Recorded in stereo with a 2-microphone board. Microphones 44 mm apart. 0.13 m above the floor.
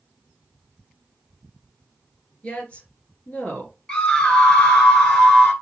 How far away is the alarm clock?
No alarm clock in this recording.